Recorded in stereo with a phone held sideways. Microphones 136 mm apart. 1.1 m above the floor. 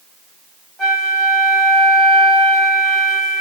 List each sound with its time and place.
0.8 s a flute: 5° left (ahead or behind), 3 m